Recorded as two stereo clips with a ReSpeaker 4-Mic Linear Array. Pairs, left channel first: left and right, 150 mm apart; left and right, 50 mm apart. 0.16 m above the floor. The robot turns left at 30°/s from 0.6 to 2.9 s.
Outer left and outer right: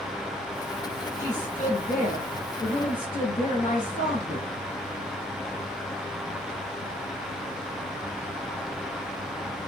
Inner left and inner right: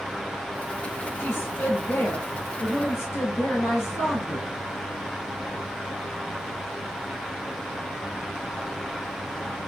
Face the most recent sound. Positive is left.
turn(degrees=70)